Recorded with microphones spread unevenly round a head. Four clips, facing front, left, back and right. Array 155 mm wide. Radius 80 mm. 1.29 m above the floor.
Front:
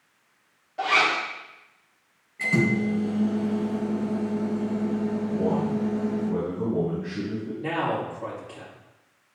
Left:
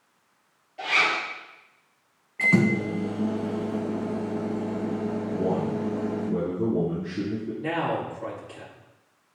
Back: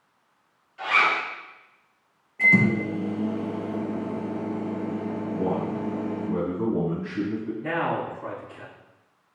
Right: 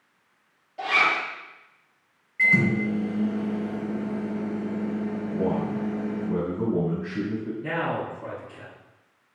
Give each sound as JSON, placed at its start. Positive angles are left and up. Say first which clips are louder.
{"t": 0.8, "sound": "a zipper", "louder": "right 2 dB, even", "azimuth_deg": -20, "distance_m": 1.5}
{"t": 2.4, "sound": "a microwave", "louder": "left 1 dB, back 2 dB", "azimuth_deg": 115, "distance_m": 0.9}
{"t": 5.3, "sound": "a man speaking", "louder": "right 1 dB, even", "azimuth_deg": -75, "distance_m": 3.0}
{"t": 7.6, "sound": "a man speaking", "louder": "left 2 dB, front 1 dB", "azimuth_deg": 40, "distance_m": 2.0}